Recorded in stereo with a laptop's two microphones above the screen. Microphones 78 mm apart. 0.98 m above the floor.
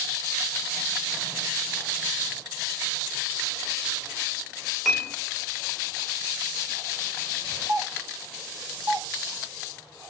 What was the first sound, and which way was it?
Dishes clattering, centre (ahead or behind).